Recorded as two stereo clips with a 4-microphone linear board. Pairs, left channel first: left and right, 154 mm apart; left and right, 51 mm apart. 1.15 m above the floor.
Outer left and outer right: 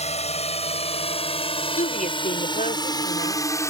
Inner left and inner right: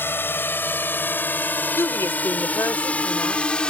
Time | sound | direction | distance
0.0 | a drone | 45° left (ahead or behind) | ?
1.8 | a woman speaking | 60° left (ahead or behind) | ?